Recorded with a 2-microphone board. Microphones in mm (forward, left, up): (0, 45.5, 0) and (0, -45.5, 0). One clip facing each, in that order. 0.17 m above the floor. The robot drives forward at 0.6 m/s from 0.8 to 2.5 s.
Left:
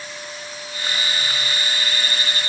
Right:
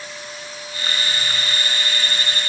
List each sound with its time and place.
Only background noise.